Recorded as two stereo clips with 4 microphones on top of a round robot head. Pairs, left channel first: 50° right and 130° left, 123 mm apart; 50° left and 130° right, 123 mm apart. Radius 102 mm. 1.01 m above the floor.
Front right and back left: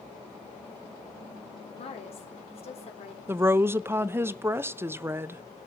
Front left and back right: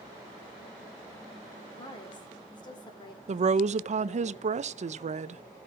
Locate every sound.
1.8 s a woman speaking: 5° right, 4 m
3.3 s a woman speaking: 155° right, 0.7 m